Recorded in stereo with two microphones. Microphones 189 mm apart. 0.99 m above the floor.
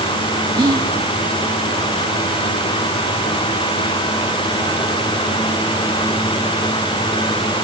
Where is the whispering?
20° right (ahead or behind), 0.9 m.